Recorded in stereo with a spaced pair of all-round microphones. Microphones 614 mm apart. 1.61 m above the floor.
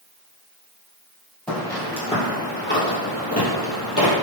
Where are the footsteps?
Centre (ahead or behind), 1.9 m; by 4.1 s 30° left (ahead or behind), 1.9 m.